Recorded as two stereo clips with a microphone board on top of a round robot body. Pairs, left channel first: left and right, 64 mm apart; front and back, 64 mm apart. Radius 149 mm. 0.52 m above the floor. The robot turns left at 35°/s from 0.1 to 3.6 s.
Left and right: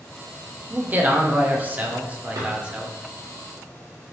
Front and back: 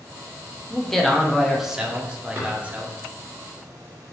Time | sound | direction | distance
0.7 | a man speaking | 75° right | 0.8 m
2.4 | a drawer | 115° right | 1.3 m